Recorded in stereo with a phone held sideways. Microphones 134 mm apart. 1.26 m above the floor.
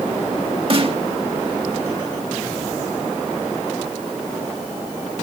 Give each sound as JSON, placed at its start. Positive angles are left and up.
{"t": 0.7, "sound": "a snare drum", "side_deg": -45, "distance_m": 1.8}